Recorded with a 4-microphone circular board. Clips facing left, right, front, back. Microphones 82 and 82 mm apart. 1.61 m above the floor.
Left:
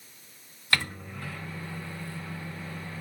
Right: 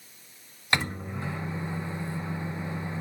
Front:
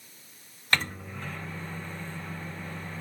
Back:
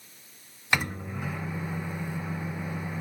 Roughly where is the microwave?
Behind right.